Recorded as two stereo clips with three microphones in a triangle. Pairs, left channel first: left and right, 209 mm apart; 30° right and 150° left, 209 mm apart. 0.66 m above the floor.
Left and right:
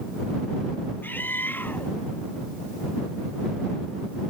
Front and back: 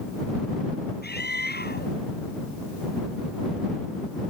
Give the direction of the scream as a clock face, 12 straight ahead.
12 o'clock.